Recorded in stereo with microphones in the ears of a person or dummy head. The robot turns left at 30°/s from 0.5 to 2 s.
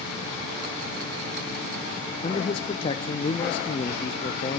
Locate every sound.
2.2 s a man speaking: 30° left (ahead or behind), 0.5 m